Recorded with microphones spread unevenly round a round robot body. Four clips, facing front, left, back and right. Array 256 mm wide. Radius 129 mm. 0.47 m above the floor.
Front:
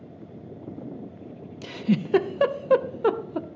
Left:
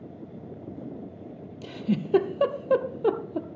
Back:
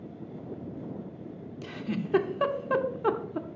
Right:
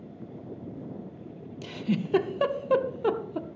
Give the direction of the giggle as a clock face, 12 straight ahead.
11 o'clock.